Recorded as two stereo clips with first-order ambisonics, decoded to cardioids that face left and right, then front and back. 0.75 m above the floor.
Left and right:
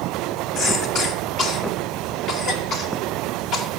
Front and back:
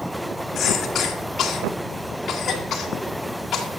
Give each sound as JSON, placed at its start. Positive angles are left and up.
{"t": 0.6, "sound": "a cough", "azimuth_deg": 50, "distance_m": 1.5}